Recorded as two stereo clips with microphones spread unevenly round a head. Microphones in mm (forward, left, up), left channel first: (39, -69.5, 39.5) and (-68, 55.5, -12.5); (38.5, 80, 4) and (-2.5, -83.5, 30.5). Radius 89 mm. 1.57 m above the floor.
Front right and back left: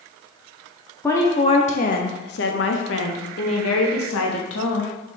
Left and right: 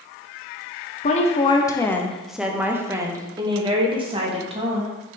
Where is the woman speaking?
35° left, 0.8 m; by 5.2 s 50° right, 2 m.